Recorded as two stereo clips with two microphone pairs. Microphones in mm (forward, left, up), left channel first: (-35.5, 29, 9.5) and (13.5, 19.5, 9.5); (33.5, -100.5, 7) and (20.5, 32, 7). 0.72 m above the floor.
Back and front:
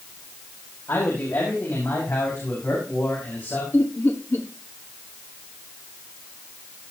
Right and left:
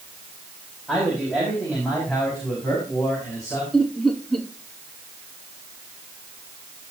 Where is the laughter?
170° right, 1.8 m.